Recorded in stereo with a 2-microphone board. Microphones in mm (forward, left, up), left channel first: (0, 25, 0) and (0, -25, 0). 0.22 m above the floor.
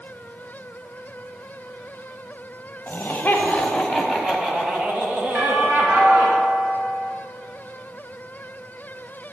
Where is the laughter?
35° left (ahead or behind), 1.1 m; by 6.3 s 45° right (ahead or behind), 1.9 m.